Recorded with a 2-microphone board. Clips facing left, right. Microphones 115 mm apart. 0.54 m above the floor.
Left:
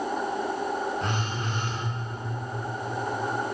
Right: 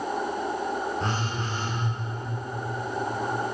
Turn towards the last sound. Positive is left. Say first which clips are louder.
# right 1 dB
turn(degrees=-35)  # may be behind; listen again after turning